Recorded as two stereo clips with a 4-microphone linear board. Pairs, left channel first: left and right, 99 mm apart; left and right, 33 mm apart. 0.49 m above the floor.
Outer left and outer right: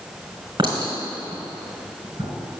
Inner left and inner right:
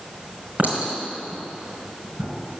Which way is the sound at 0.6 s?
50° right (ahead or behind).